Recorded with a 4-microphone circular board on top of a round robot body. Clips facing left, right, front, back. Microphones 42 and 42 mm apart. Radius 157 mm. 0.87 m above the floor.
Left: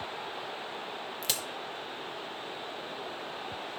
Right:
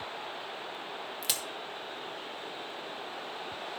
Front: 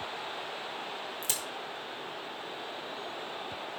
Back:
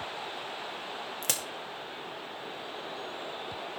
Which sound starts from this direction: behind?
A crack, at 1.2 s.